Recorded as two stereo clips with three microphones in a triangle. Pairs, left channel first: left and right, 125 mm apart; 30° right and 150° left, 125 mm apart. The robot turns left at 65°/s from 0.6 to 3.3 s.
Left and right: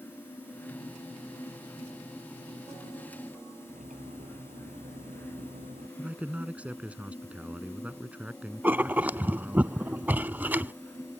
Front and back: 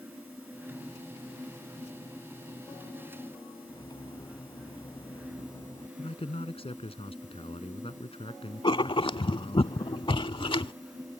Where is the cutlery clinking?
90° right.